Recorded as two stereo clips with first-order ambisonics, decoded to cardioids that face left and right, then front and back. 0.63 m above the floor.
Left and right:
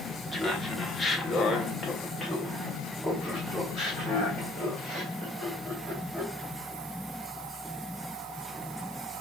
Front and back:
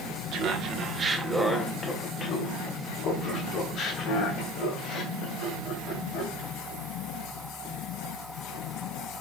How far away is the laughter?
About 0.9 m.